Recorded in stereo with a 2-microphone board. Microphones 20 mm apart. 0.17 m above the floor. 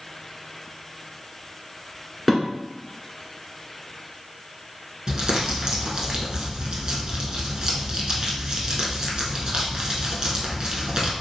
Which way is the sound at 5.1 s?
40° right (ahead or behind).